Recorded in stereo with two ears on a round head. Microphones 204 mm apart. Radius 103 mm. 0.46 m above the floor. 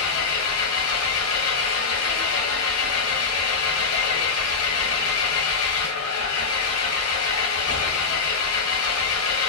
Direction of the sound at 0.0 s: 65° left (ahead or behind).